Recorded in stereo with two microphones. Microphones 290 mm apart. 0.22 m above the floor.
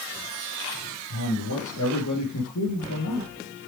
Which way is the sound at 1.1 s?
75° left (ahead or behind).